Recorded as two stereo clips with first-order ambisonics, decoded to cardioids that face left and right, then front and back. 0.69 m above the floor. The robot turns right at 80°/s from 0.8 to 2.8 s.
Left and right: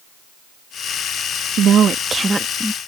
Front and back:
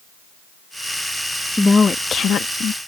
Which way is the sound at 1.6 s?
80° right.